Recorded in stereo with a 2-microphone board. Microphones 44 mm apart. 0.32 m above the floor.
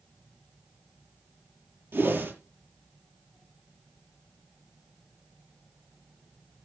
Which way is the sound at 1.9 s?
65° right (ahead or behind).